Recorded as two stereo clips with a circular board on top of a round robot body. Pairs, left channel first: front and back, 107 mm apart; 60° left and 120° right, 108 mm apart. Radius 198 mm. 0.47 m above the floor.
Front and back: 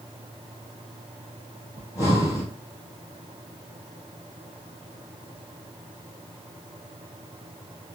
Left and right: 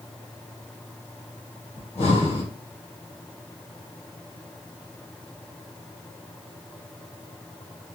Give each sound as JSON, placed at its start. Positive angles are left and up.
{"t": 1.8, "sound": "breathing", "azimuth_deg": 60, "distance_m": 2.0}